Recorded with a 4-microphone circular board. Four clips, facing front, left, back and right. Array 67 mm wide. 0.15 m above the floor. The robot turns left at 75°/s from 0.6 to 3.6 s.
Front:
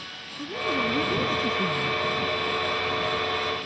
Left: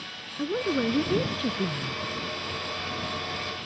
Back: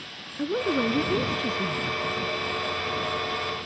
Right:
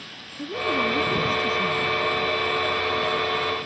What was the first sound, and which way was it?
A woman speaking, 150° left.